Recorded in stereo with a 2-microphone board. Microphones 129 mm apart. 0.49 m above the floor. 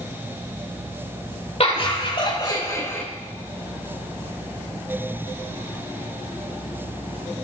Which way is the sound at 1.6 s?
55° left (ahead or behind).